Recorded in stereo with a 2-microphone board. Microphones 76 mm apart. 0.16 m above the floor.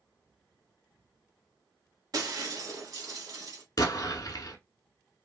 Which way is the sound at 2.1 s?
50° right (ahead or behind).